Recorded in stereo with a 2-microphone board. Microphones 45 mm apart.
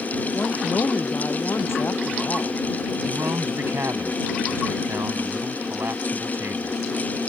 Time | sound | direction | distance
0.3 | a woman speaking | 60° left (ahead or behind) | ?
3.0 | a man speaking | 65° right (ahead or behind) | ?